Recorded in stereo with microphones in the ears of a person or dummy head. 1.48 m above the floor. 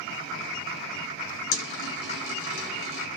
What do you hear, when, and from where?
1.5 s a dropped coin: 60° left (ahead or behind), 1.6 m